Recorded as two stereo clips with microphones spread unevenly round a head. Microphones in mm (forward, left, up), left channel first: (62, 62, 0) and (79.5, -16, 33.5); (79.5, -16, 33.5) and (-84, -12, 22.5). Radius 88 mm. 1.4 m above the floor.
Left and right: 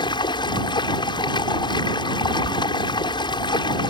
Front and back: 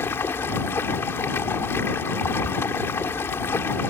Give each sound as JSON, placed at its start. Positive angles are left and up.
{"t": 0.0, "sound": "running water", "azimuth_deg": 75}